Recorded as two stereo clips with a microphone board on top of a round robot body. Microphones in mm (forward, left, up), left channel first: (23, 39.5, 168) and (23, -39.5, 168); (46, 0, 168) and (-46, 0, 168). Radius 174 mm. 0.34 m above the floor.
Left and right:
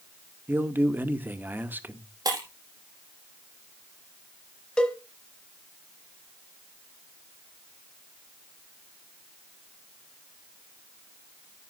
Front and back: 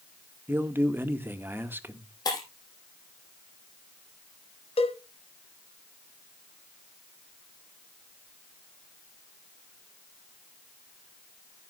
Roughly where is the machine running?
No machine running in this recording.